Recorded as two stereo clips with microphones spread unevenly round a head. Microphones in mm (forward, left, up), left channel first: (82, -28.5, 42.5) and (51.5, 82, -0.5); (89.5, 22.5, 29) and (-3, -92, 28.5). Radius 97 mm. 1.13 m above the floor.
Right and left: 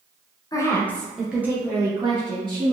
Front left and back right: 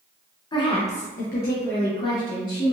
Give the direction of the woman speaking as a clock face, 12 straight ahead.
12 o'clock.